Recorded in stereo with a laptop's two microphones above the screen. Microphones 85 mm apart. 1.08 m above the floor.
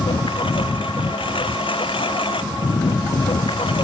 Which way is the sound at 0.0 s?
90° left.